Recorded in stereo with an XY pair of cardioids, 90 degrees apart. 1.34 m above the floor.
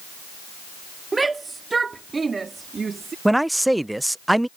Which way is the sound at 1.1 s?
25° right.